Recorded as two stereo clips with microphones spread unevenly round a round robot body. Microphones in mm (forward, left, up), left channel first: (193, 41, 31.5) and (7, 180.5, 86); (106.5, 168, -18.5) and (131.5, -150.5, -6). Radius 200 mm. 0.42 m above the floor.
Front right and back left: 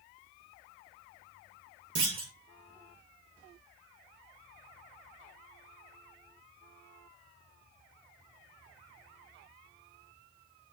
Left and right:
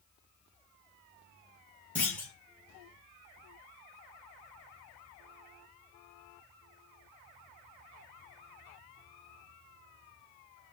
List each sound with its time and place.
1.9 s a clunk: straight behind, 0.9 m